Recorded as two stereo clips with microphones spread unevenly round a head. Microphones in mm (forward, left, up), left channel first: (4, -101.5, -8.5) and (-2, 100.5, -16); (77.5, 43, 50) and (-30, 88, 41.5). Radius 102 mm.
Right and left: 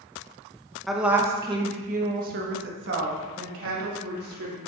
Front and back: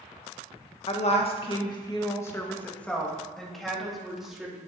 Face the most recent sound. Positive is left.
turn(degrees=75)